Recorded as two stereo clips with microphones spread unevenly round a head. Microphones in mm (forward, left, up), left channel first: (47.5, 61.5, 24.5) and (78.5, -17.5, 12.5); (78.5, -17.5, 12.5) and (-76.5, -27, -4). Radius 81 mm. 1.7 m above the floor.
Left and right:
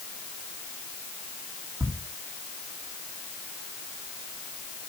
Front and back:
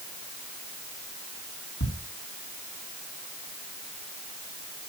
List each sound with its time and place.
1.8 s ticking: 10° right, 3 m